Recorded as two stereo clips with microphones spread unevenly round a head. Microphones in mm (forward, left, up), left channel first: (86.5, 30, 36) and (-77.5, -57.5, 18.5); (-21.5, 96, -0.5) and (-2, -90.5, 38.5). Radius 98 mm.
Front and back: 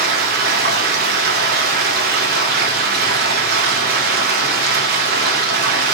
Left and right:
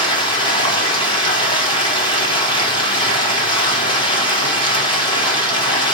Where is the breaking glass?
No breaking glass in this recording.